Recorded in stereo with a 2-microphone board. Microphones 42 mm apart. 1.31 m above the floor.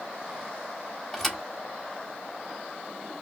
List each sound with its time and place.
1.1 s a thud: 5° left (ahead or behind), 1.0 m